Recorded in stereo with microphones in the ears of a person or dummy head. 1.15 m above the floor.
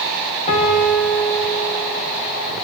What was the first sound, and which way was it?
A piano, 25° left (ahead or behind).